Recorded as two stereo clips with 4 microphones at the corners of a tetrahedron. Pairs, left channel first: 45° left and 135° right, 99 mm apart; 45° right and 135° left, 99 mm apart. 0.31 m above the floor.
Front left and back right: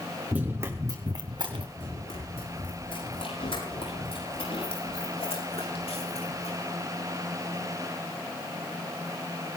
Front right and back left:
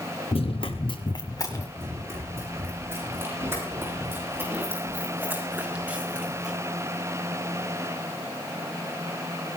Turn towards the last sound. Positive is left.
turn(degrees=50)